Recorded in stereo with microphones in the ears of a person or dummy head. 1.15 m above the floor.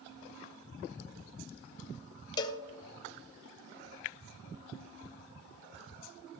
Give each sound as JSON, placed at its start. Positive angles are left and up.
{"t": 2.4, "sound": "a cowbell", "side_deg": 15, "distance_m": 0.7}